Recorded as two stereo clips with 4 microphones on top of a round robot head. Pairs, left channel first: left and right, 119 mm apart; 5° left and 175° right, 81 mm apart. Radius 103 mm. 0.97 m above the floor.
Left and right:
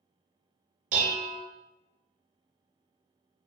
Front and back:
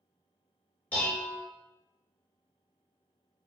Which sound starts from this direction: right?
Dishes clattering, at 0.9 s.